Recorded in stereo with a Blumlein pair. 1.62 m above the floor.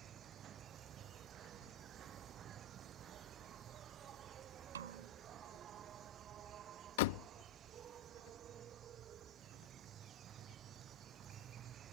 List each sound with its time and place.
0.0 s an insect: 30° right
4.8 s a snare drum: 65° right
7.0 s a door slam: 50° left